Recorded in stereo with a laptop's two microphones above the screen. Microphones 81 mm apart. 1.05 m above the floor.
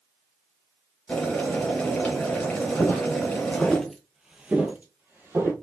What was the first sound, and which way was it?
Boiling, 10° left (ahead or behind).